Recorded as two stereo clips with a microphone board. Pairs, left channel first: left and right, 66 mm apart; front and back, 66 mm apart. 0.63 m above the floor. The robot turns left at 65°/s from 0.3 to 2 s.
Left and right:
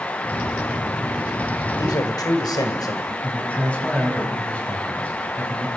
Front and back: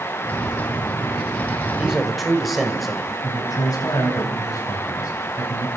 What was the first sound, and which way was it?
A man speaking, 110° left.